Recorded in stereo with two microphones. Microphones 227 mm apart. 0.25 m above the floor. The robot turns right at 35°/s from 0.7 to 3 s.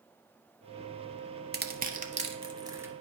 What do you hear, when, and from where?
1.5 s crushing: 45° right (ahead or behind), 0.7 m; by 2.9 s 10° right (ahead or behind), 0.7 m